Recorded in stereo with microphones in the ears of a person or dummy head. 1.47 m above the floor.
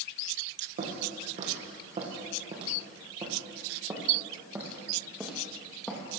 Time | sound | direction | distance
0.8 | footsteps | 45° right (ahead or behind) | 4.5 m